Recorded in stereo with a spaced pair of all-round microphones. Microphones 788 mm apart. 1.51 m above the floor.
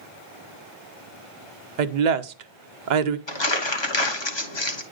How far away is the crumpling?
About 1.0 m.